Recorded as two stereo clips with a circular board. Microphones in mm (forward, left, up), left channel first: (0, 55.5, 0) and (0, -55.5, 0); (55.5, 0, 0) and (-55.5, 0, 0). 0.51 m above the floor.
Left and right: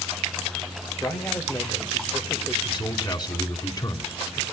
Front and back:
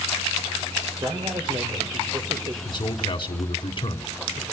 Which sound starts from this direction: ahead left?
A man speaking, at 2.6 s.